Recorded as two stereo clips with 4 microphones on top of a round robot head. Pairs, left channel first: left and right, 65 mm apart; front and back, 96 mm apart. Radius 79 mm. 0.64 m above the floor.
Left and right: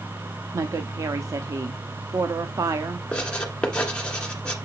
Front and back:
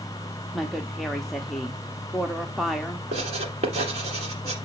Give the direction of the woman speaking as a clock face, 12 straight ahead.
3 o'clock.